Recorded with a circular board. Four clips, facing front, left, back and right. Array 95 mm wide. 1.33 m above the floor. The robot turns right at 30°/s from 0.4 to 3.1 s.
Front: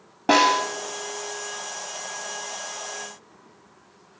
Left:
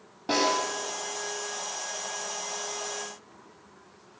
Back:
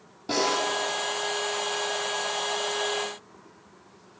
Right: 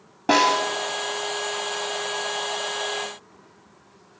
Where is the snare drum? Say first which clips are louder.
Right 7 dB, front 7 dB; 30° right, 3.5 m; by 0.7 s 20° right, 3.5 m.